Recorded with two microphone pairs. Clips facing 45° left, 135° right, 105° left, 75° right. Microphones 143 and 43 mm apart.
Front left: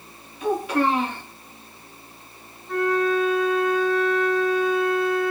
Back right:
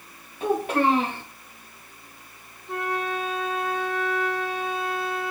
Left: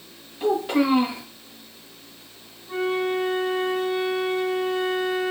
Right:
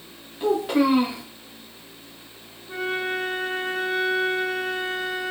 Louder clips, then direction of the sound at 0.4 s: Even, right 1 dB; 160° right.